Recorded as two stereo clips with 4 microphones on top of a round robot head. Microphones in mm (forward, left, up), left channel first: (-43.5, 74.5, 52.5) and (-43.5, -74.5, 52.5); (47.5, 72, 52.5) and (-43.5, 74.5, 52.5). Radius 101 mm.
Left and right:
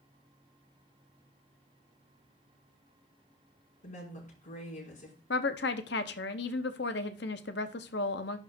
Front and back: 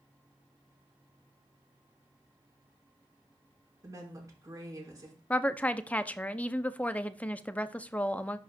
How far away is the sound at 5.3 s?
About 0.7 m.